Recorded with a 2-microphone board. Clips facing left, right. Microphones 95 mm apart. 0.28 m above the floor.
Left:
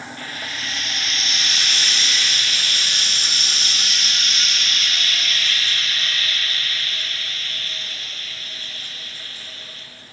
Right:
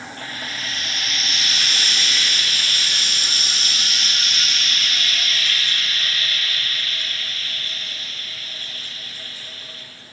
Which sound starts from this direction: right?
Frying, at 0.2 s.